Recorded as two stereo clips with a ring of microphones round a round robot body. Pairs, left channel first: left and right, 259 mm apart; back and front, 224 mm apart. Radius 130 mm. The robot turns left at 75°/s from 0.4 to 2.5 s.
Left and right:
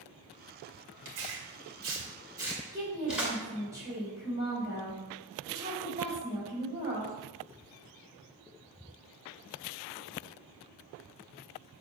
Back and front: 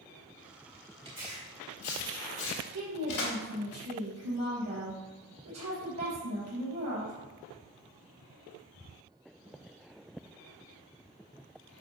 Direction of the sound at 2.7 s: 10° right.